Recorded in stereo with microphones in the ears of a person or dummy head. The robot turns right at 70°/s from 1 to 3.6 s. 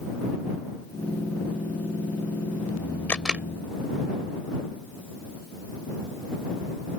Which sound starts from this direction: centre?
A camera shutter, at 3.1 s.